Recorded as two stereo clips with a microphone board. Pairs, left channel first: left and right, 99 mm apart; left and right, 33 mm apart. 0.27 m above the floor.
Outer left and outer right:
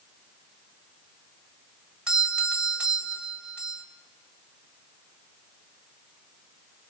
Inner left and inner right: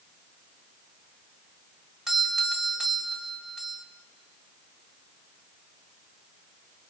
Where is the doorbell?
10° right (ahead or behind), 1.6 m.